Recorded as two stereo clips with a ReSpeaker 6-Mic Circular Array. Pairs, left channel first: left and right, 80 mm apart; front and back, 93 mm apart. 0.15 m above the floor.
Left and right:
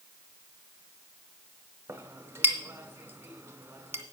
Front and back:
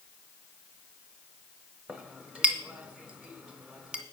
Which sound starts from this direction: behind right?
A clink, at 1.9 s.